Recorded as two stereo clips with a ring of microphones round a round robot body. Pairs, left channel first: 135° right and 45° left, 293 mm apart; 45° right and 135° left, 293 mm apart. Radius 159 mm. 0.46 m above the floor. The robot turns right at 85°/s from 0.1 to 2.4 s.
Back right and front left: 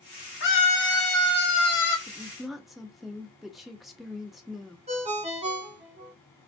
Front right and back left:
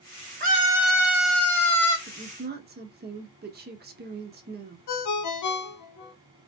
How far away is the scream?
About 1.7 m.